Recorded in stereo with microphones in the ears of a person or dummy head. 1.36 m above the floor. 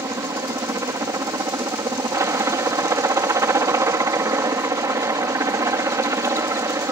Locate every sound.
0.0 s a helicopter: 10° right (ahead or behind)